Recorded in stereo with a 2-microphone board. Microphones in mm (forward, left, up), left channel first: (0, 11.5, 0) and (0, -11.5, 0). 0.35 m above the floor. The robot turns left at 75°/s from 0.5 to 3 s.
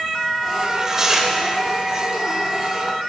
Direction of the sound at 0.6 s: 110° right.